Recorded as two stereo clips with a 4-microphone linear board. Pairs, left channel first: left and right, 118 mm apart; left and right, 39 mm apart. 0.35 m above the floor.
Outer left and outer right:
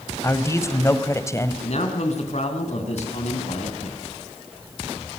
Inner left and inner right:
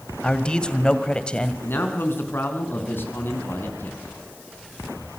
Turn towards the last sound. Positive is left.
turn(degrees=65)  # may be behind; listen again after turning